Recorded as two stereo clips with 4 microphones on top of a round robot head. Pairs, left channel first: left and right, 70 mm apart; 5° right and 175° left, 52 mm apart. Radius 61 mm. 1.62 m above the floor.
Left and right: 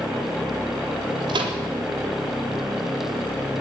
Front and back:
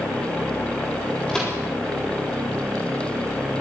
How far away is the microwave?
About 3.5 m.